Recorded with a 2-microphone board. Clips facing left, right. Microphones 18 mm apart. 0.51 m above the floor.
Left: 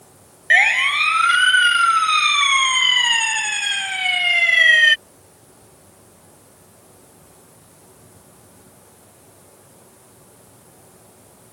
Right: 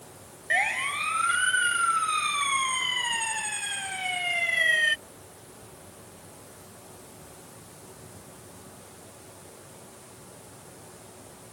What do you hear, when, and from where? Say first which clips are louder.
0.5 s a siren: left 12 dB; 65° left (ahead or behind); by 5.0 s 55° left (ahead or behind)